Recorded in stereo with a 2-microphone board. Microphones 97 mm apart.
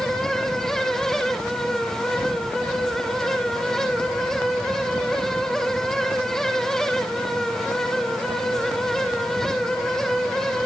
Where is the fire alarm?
I don't hear a fire alarm.